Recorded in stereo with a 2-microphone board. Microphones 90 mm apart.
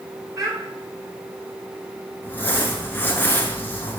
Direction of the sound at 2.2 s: 20° left (ahead or behind).